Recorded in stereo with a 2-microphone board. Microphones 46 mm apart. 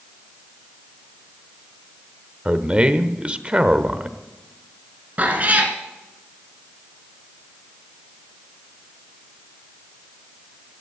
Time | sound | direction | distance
2.5 | a man speaking | 25° right (ahead or behind) | 1.0 m
5.2 | a cat meowing | 35° right (ahead or behind) | 1.9 m